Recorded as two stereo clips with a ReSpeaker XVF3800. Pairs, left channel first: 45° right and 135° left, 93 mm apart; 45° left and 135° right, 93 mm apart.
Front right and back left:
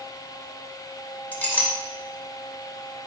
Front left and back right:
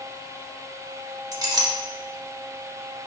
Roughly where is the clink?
Right.